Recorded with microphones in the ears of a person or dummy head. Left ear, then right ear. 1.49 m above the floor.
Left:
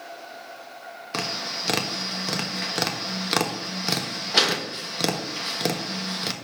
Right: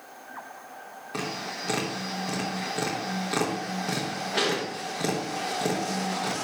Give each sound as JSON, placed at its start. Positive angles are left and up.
{"t": 1.1, "sound": "tapping", "side_deg": 40, "distance_m": 1.2}